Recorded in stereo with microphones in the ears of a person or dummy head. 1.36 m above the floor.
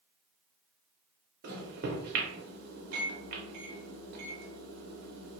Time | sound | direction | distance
1.4 | a microwave | 70° right (ahead or behind) | 0.7 m